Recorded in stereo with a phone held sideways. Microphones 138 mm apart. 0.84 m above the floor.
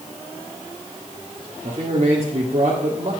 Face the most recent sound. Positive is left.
turn(degrees=-45)  # may be behind; listen again after turning